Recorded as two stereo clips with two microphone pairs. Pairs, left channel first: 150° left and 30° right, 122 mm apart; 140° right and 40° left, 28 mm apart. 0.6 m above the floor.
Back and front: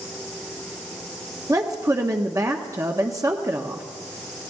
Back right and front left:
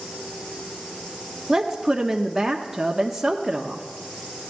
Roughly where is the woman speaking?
Ahead right.